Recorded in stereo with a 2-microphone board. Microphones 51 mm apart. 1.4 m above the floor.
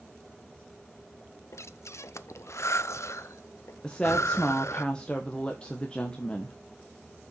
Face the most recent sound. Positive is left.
turn(degrees=20)  # may be behind; listen again after turning